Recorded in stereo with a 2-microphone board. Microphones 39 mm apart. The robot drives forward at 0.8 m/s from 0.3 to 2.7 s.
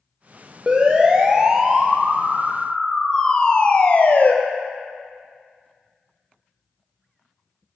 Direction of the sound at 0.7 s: 25° right (ahead or behind).